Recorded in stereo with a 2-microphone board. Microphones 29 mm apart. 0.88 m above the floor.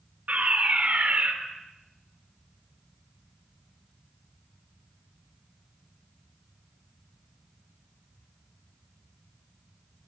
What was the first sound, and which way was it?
A fire alarm, 60° right (ahead or behind).